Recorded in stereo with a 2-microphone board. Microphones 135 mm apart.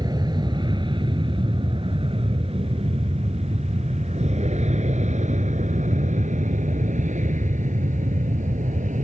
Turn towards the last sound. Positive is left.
turn(degrees=-65)  # may be behind; listen again after turning